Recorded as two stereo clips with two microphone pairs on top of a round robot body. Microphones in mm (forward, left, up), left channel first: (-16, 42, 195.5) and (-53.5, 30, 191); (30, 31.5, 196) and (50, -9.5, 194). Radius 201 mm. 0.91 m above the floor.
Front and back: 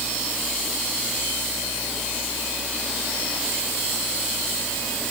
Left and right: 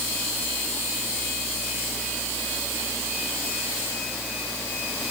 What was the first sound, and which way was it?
Only background noise.